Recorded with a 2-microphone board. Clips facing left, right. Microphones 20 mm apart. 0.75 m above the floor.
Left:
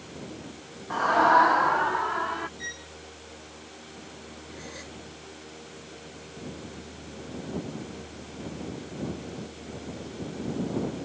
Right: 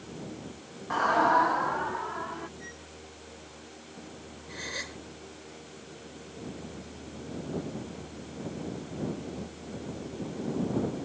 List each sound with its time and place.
0.9 s a scream: 5° right (ahead or behind); by 2.5 s 50° left (ahead or behind)
2.6 s a violin: 60° left (ahead or behind)
4.5 s a gasp: 40° right (ahead or behind)